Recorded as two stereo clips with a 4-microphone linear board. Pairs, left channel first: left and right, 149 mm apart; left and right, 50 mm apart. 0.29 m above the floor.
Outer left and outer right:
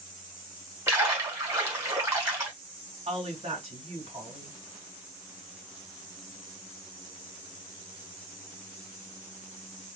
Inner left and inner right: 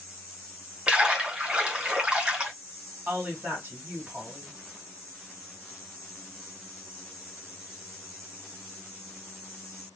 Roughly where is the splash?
Right.